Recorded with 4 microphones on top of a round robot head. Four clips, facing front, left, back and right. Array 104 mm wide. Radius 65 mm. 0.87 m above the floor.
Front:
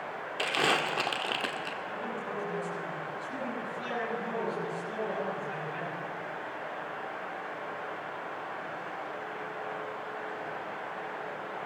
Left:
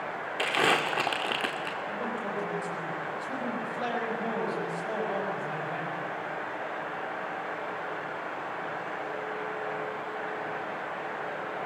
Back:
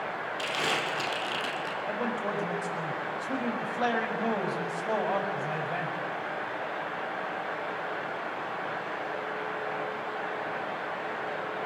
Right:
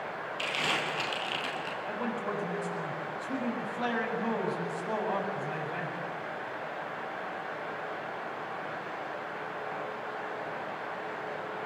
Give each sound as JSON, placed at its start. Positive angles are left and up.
{"t": 0.4, "sound": "crumpling", "azimuth_deg": 70, "distance_m": 2.0}
{"t": 1.9, "sound": "a man speaking", "azimuth_deg": 175, "distance_m": 6.0}